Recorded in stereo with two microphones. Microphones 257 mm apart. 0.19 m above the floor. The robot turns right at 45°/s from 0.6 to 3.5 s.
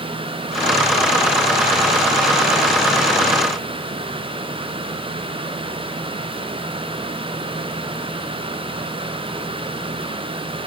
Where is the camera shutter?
No camera shutter in this recording.